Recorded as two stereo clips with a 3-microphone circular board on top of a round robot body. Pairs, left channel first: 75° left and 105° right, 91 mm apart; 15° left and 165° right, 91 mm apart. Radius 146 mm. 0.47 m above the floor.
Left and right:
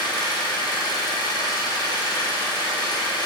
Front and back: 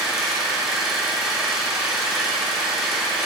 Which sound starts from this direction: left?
An engine running, at 0.0 s.